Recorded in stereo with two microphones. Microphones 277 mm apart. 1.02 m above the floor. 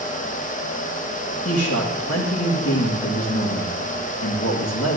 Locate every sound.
1.4 s a man speaking: 60° left (ahead or behind), 1.6 m